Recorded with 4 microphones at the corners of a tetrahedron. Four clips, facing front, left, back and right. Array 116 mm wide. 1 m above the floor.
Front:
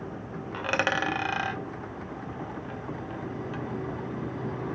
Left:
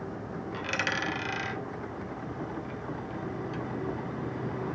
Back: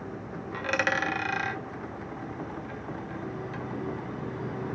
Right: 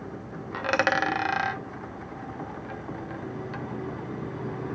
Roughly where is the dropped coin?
Ahead right.